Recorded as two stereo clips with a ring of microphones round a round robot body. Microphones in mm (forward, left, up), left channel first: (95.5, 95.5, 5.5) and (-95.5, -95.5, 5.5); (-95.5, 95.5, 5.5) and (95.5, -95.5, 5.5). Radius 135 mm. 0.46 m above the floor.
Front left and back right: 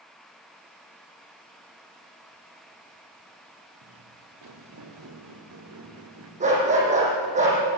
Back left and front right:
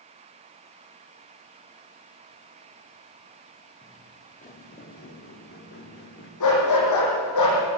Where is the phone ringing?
I don't hear a phone ringing.